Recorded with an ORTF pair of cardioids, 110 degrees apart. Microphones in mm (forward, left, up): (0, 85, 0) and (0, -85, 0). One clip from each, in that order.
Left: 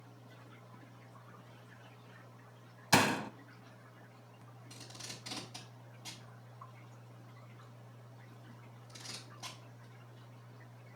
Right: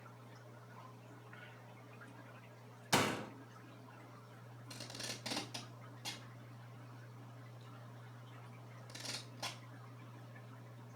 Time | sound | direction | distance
2.9 | a door slam | 30° left | 0.9 m
4.7 | tape being pulled | 40° right | 5 m